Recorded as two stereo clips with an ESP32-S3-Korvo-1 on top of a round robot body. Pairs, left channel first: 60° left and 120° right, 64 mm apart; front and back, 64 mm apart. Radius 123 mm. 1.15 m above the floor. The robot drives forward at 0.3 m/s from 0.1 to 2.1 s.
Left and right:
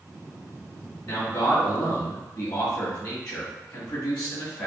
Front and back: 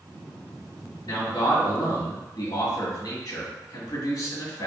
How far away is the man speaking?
About 2 m.